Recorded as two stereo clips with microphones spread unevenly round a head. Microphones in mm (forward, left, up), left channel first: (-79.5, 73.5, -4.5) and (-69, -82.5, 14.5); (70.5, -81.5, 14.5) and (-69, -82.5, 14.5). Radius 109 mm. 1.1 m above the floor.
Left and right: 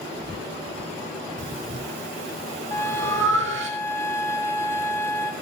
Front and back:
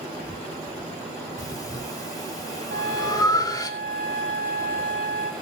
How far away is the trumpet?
About 1.9 m.